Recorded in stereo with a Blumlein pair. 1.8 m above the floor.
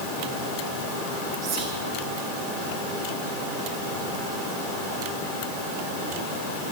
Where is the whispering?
35° right, 3.5 m.